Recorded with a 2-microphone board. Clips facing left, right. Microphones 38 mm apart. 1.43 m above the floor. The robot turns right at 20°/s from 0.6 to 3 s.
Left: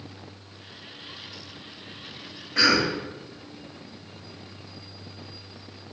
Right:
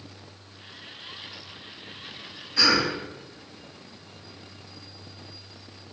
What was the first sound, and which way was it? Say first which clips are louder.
A cough: left 1 dB; 80° left.